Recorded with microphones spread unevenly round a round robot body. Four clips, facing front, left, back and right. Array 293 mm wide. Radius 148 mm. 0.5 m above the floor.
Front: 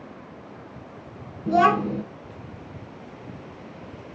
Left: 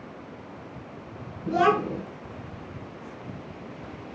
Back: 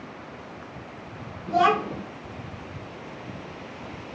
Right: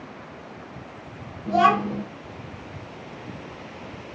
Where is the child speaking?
15° left, 3.5 m.